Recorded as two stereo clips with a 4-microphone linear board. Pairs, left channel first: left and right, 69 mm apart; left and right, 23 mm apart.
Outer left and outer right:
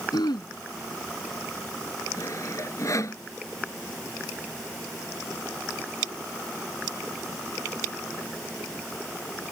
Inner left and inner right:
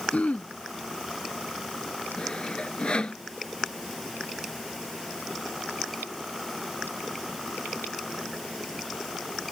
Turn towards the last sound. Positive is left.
turn(degrees=50)  # may be behind; listen again after turning